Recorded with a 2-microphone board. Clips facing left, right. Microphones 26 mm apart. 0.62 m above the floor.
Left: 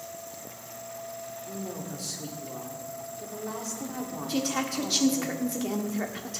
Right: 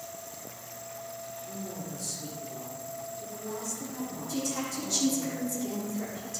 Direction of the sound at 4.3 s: 55° left (ahead or behind).